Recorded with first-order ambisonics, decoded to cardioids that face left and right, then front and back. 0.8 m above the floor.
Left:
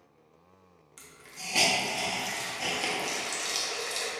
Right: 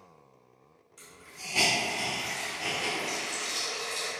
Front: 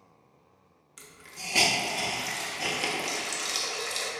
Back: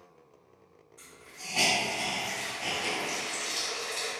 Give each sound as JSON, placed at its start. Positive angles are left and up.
{"t": 1.0, "sound": "a hiss", "azimuth_deg": 30, "distance_m": 0.7}